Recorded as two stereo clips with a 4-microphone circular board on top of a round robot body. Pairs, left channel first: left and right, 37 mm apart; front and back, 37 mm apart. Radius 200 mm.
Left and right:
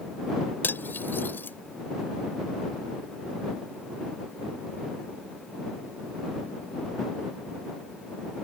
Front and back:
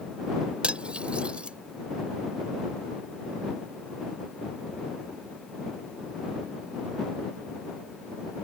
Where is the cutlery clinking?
120° left.